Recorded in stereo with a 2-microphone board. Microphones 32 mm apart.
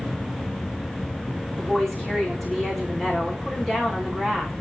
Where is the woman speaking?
10° left (ahead or behind), 7 m.